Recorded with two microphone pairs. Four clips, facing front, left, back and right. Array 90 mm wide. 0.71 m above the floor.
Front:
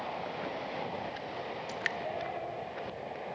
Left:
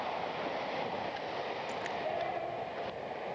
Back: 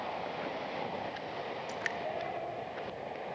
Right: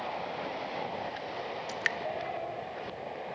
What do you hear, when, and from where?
1.7 s dripping: 85° right, 1.1 m